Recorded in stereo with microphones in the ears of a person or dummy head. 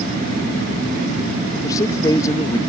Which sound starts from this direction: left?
A man speaking, at 1.6 s.